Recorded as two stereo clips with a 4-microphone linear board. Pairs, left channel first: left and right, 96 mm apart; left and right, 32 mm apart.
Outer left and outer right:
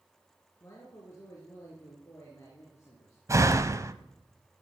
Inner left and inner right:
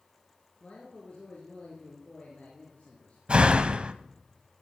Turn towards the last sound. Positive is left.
turn(degrees=-35)  # may be behind; listen again after turning